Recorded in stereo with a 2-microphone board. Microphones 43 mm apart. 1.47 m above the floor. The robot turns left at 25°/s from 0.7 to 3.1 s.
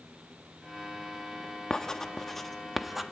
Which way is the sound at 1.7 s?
10° left (ahead or behind).